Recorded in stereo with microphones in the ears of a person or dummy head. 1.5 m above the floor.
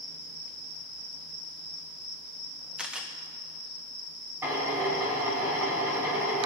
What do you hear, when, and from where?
2.8 s a camera shutter: 5° right (ahead or behind), 1.2 m
4.4 s a drill: 10° right (ahead or behind), 3 m